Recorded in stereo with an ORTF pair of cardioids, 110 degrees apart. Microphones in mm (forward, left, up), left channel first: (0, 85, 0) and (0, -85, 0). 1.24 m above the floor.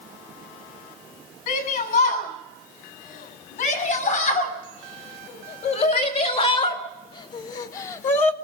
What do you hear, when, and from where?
1.5 s a shout: 65° left, 9.5 m; by 8.3 s 45° left, 1.4 m